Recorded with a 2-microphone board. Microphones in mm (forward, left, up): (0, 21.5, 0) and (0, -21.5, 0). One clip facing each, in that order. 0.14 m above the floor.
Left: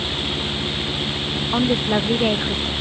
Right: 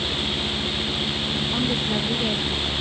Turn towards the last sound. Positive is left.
turn(degrees=45)  # may be behind; listen again after turning